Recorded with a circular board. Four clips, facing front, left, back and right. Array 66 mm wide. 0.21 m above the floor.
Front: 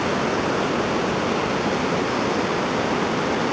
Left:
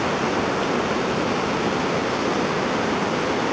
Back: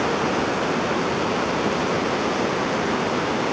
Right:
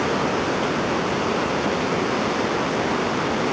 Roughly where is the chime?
No chime in this recording.